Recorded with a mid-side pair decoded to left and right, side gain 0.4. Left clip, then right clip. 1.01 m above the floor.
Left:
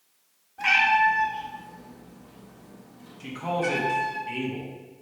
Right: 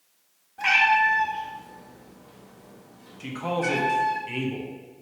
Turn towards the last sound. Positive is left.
turn(degrees=-25)